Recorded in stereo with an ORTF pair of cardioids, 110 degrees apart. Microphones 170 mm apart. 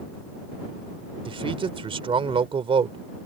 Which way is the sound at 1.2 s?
30° right.